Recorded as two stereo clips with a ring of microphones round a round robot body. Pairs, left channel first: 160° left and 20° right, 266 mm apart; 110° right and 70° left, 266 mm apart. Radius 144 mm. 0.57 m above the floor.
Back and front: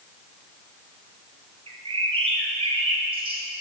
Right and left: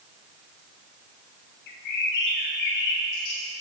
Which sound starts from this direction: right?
A bird, at 1.7 s.